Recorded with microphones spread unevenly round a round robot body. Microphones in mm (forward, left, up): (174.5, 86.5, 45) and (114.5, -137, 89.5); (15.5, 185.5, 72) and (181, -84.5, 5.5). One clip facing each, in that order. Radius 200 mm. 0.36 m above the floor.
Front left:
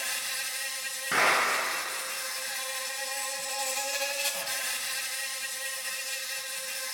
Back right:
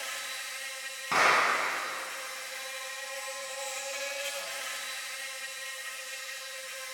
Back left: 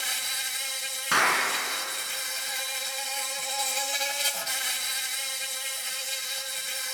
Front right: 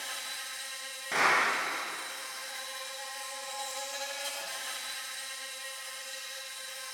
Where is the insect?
110° left, 1.8 m.